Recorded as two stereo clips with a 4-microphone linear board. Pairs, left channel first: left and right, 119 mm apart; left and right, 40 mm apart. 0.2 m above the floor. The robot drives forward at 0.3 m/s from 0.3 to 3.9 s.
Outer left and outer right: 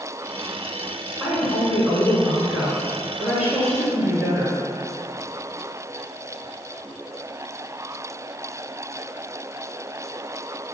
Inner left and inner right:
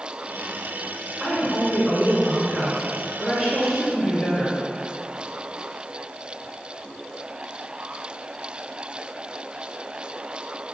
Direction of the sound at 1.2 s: 10° right (ahead or behind).